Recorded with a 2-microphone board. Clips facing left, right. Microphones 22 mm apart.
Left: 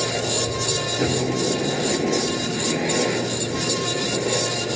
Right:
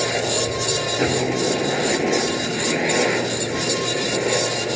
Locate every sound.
0.0 s a helicopter: 25° right (ahead or behind)